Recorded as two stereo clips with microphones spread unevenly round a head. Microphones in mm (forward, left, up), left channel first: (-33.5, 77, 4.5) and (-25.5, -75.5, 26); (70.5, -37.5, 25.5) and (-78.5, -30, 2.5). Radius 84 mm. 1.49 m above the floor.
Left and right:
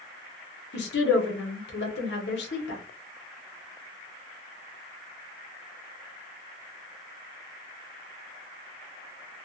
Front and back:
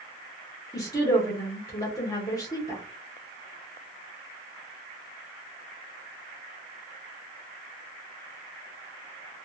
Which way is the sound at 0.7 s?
65° left.